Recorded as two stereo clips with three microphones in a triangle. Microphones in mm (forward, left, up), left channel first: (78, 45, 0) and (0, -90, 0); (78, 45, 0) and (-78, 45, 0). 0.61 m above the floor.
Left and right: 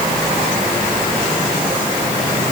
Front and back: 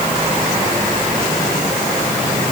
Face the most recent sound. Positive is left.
No sound to turn to.